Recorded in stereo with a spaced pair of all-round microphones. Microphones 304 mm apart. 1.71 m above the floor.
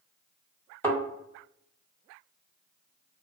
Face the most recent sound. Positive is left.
turn(degrees=5)  # may be behind; listen again after turning